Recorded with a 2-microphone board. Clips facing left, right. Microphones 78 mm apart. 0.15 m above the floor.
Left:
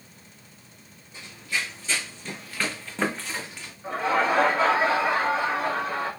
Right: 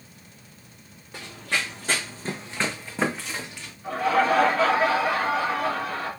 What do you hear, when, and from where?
1.1 s running footsteps: 85° right, 1.1 m; by 3.7 s 10° left (ahead or behind), 1.4 m
3.8 s laughter: 20° left (ahead or behind), 2.5 m